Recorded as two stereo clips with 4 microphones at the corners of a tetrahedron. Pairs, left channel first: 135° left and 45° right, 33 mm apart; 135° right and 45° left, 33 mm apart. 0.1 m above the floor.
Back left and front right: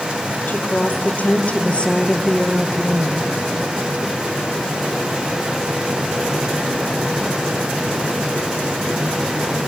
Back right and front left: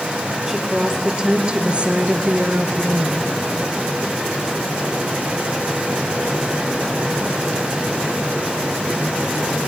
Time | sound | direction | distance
0.5 | a woman speaking | 120° left | 3 m